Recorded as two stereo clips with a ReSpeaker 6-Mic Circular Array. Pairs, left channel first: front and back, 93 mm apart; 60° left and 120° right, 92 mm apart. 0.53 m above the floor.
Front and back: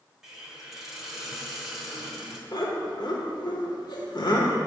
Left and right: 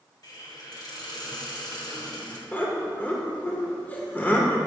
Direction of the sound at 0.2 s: 95° left.